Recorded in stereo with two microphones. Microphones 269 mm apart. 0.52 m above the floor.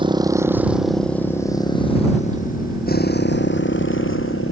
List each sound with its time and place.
0.0 s a motorcycle: 15° right (ahead or behind); by 4.5 s 50° left (ahead or behind)